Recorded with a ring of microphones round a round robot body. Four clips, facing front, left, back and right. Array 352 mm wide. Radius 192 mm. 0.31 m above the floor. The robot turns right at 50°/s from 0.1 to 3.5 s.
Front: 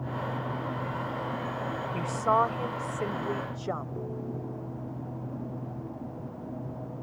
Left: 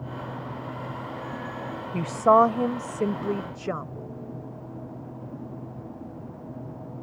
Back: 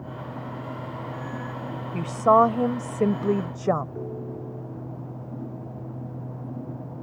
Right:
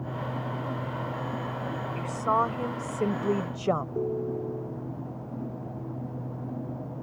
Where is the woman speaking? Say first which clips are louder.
Left 9 dB, back 8 dB; 120° left; by 3.9 s 160° right.